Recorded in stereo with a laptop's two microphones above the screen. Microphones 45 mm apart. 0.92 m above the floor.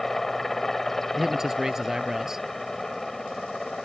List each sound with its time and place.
0.0 s a helicopter: 10° left (ahead or behind)
1.1 s a man speaking: 10° right (ahead or behind)